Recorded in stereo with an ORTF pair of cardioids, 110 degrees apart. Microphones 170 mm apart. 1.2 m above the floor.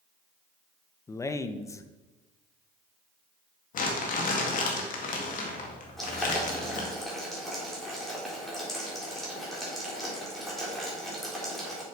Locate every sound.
1.1 s a man speaking: 15° left, 0.7 m
3.7 s crumpling: 55° left, 2 m
6.0 s boiling: straight ahead, 3.5 m